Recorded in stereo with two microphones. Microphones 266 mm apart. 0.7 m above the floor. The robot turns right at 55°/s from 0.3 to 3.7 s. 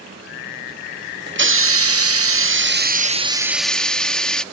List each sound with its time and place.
1.3 s a hiss: 130° right; by 4.4 s 5° left